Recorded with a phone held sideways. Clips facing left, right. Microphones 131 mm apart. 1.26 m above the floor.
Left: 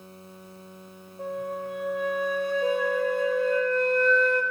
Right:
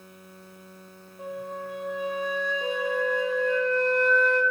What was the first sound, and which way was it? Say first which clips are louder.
A flute: left 3 dB; centre (ahead or behind).